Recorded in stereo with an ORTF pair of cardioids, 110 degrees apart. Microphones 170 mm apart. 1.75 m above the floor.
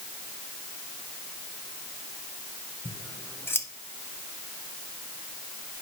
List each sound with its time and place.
2.9 s scissors: 15° left, 1.6 m